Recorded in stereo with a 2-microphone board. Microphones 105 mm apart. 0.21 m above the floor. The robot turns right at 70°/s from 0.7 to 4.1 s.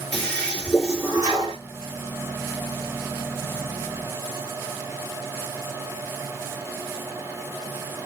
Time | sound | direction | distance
0.1 | a toilet flushing | 175° left | 3.5 m